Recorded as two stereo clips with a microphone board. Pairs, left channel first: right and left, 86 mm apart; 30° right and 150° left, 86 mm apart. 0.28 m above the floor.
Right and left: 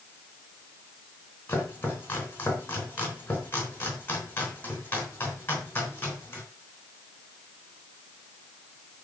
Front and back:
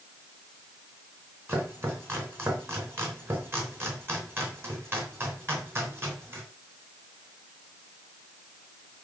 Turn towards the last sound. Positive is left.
turn(degrees=-155)